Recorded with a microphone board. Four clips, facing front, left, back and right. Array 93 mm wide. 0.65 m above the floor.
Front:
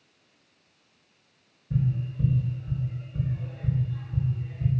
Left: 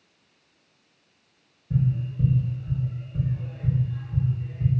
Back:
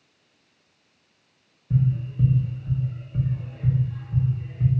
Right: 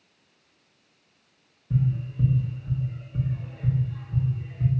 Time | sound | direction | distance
1.7 | tapping | 160° right | 1.2 m